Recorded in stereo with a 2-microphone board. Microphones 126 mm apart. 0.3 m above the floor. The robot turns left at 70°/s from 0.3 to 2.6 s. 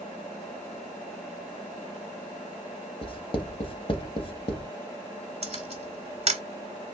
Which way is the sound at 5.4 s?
50° right (ahead or behind).